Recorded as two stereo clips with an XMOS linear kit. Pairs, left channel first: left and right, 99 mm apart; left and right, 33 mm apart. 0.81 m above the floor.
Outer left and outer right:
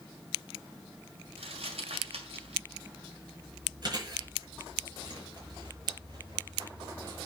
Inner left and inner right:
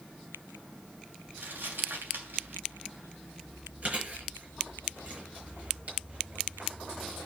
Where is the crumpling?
90° right, 2.5 m.